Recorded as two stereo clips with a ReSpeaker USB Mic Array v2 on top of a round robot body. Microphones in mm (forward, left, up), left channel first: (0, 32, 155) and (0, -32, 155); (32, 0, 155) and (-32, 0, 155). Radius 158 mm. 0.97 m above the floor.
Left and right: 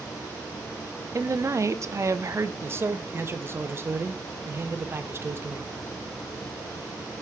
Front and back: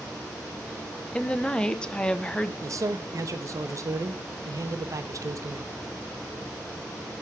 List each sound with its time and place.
1.1 s a woman speaking: 70° right, 1.1 m
2.6 s a man speaking: 140° right, 1.1 m